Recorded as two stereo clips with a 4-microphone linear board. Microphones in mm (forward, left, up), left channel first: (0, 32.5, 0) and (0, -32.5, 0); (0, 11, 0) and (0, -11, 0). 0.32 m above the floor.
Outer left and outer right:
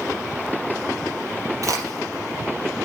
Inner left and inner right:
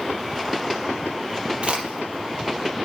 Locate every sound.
1.6 s a crack: 55° right (ahead or behind), 5 m